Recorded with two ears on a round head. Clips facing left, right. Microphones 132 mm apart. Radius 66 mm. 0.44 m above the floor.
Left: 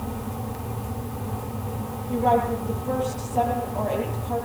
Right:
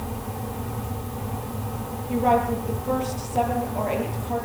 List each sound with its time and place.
2.1 s a woman speaking: 15° right (ahead or behind), 9 m